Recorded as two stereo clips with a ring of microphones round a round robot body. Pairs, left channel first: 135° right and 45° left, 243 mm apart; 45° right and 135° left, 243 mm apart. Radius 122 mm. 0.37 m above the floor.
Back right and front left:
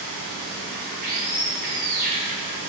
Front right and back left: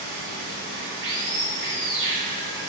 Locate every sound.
0.0 s running water: 95° left, 1.1 m